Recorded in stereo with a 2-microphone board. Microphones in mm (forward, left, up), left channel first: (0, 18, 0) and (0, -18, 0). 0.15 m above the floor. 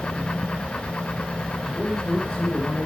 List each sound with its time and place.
1.6 s a man speaking: 40° left (ahead or behind), 8.5 m; by 2.9 s 45° left (ahead or behind), 6.5 m